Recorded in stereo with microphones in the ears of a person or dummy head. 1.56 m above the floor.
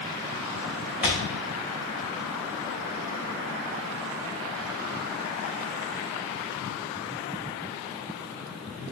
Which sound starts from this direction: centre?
A thud, at 1.0 s.